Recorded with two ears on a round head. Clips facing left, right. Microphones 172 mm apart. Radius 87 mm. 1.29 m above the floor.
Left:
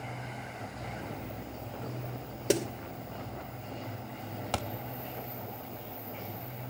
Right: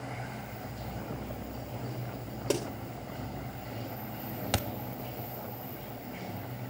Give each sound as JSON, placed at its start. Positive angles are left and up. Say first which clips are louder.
{"t": 0.0, "sound": "running water", "louder": "right 1 dB", "side_deg": -10, "distance_m": 5.5}
{"t": 2.5, "sound": "a snare drum", "louder": "left 3 dB", "side_deg": 20, "distance_m": 2.5}
{"t": 4.5, "sound": "a thud", "louder": "right 1 dB", "side_deg": -20, "distance_m": 0.7}